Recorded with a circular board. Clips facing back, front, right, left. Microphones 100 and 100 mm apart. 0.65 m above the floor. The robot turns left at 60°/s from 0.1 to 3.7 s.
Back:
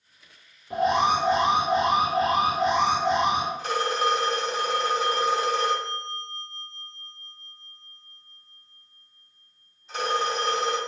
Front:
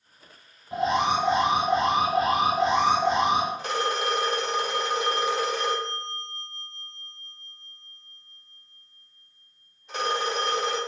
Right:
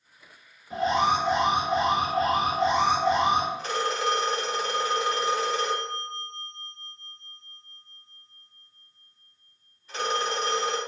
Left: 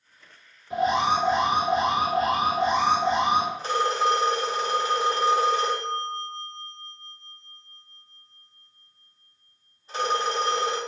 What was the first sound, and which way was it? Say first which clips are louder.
An alarm: back 2 dB, left 1 dB; 175° left.